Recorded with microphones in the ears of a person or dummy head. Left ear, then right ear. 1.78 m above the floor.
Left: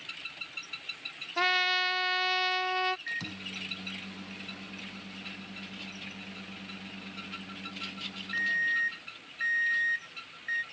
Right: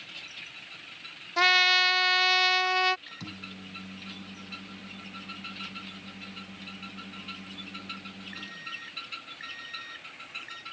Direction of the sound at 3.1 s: 20° left (ahead or behind).